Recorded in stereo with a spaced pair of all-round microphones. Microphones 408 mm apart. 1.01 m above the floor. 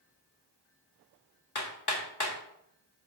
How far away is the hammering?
About 1.7 m.